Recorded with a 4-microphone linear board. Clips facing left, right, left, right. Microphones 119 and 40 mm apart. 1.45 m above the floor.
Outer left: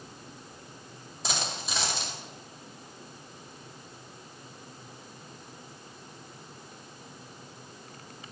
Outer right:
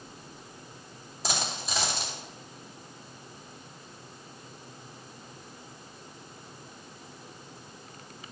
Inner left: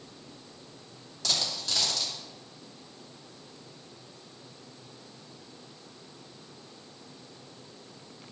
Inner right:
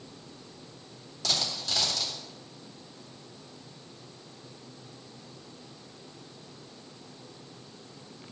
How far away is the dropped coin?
About 2.5 m.